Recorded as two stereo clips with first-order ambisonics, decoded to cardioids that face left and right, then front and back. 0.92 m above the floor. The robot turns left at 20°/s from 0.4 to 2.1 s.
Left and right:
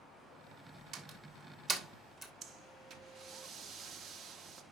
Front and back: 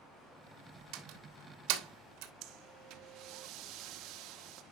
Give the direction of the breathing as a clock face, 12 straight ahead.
5 o'clock.